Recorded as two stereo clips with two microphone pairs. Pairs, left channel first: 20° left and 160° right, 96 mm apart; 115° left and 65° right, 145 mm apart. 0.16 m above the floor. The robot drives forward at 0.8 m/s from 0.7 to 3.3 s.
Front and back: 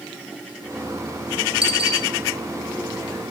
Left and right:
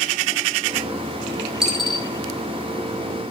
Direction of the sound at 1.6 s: 150° right.